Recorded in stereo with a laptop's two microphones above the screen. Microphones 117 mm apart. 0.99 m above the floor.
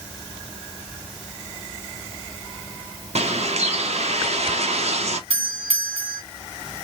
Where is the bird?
65° right (ahead or behind), 0.6 m.